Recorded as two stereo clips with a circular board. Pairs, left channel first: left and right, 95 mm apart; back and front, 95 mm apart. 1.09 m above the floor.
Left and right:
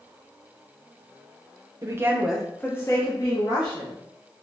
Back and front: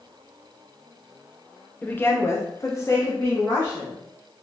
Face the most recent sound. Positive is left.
turn(degrees=115)